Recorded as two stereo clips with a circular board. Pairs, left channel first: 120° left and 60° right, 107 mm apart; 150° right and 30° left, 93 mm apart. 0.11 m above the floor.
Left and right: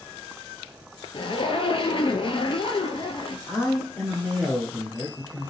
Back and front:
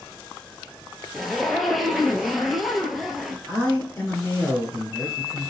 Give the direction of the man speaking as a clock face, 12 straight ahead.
7 o'clock.